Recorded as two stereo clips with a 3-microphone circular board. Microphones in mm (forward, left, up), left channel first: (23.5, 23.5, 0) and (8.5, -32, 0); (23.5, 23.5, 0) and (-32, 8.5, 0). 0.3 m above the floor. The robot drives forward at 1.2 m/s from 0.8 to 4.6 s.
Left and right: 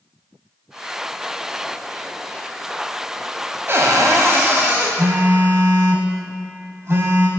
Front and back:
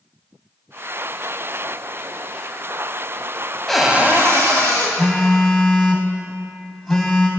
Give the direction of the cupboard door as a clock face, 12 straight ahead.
2 o'clock.